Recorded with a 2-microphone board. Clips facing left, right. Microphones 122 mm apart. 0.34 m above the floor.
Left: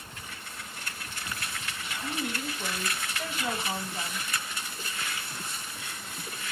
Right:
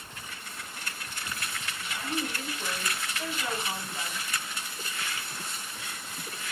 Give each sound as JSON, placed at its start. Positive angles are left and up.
{"t": 2.0, "sound": "a woman speaking", "side_deg": 10, "distance_m": 1.1}